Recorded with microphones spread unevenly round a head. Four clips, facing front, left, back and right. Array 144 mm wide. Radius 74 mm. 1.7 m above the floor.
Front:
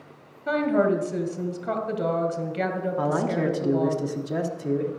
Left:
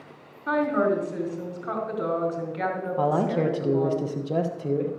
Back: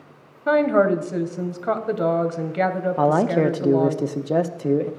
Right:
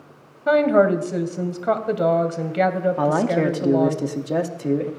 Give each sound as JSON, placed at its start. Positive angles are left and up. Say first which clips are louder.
{"t": 0.5, "sound": "a woman speaking", "louder": "right 7 dB, back 5 dB", "azimuth_deg": -135, "distance_m": 1.6}
{"t": 3.0, "sound": "a man speaking", "louder": "right 1 dB, back 7 dB", "azimuth_deg": -170, "distance_m": 1.2}